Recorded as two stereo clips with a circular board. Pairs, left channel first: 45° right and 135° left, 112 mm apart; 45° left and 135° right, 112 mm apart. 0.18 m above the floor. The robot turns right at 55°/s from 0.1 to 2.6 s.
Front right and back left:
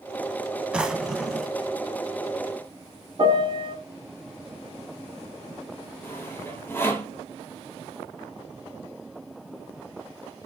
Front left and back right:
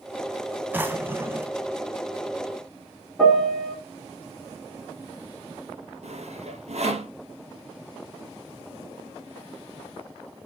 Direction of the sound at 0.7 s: 165° right.